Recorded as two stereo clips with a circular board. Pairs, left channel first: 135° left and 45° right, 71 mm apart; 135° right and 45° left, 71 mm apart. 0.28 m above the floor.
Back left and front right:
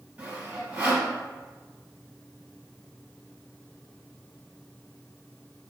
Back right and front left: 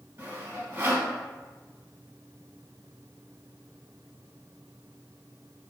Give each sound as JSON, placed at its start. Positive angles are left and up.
{"t": 0.2, "sound": "sawing", "azimuth_deg": 20, "distance_m": 1.8}